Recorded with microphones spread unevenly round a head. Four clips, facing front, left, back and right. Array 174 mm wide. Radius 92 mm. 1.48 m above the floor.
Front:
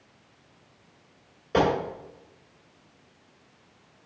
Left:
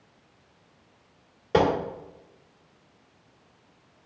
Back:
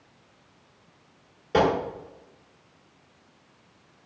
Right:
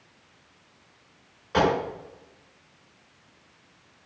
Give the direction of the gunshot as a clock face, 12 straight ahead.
9 o'clock.